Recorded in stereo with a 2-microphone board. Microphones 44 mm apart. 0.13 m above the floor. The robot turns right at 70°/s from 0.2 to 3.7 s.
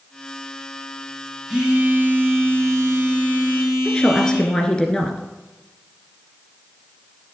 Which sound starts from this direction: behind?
A phone buzzing, at 1.5 s.